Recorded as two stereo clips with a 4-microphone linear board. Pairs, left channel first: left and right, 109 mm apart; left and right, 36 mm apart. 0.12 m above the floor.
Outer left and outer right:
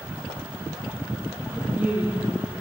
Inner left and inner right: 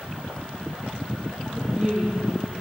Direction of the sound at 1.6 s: 15° right (ahead or behind).